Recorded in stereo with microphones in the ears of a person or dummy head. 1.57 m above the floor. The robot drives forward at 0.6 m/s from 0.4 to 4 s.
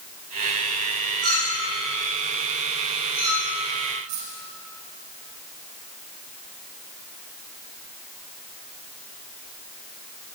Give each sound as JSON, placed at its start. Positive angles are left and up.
{"t": 1.2, "sound": "a clink", "side_deg": -45, "distance_m": 5.5}
{"t": 4.1, "sound": "a dropped coin", "side_deg": -60, "distance_m": 3.5}